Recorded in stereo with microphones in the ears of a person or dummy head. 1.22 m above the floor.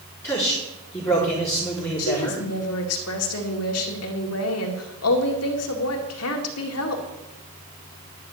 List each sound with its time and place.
0.2 s a man speaking: 15° left (ahead or behind), 4 m
2.0 s a woman speaking: 75° left (ahead or behind), 2.5 m